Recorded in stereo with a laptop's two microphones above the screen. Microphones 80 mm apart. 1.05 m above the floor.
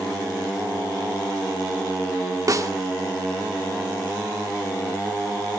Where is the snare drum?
45° right (ahead or behind), 0.9 m.